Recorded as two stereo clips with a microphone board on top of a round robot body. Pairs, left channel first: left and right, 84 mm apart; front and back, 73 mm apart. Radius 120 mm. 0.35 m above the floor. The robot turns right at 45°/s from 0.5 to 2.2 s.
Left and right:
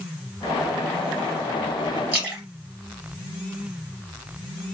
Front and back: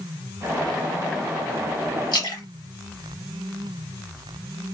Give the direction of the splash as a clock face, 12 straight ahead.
1 o'clock.